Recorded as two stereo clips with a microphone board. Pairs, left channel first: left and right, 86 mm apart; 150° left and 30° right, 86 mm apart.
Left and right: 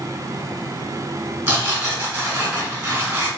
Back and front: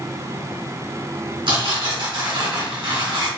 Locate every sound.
1.5 s tearing paper: 40° right, 2.5 m